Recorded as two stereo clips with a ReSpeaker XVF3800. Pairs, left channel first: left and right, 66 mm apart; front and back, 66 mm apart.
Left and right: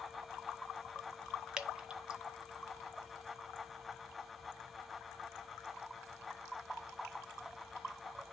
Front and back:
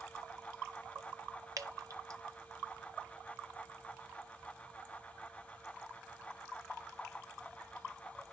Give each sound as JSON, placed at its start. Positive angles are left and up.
{"t": 1.6, "sound": "dripping", "azimuth_deg": -165, "distance_m": 0.7}